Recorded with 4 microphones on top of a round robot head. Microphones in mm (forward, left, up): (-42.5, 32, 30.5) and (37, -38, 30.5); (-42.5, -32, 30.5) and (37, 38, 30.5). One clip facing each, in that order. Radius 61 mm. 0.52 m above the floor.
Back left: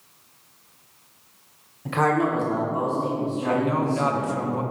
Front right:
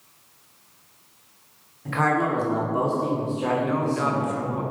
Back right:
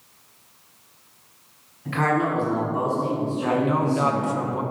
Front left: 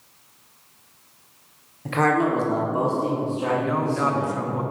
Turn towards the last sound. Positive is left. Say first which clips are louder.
# back left 1 dB, back right 3 dB
turn(degrees=165)